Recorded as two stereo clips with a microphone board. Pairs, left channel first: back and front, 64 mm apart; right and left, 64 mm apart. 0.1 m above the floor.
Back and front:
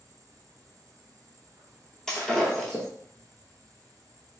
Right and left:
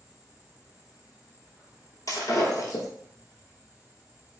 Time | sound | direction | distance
0.0 | an insect | 25° left | 1.0 m
2.1 | breaking glass | 95° right | 1.0 m